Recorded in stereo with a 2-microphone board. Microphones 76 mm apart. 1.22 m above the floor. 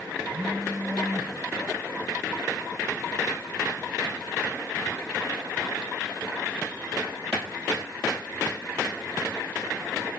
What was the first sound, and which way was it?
A phone buzzing, 70° right (ahead or behind).